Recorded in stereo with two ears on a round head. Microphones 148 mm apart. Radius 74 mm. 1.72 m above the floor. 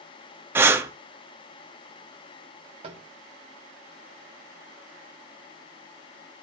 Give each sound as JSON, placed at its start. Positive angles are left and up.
{"t": 0.6, "sound": "breathing", "side_deg": -15, "distance_m": 0.5}
{"t": 2.8, "sound": "tapping", "side_deg": -35, "distance_m": 1.3}